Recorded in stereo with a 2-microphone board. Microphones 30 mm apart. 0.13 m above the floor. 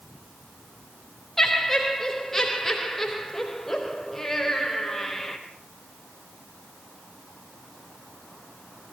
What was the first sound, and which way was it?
Laughter, 5° left (ahead or behind).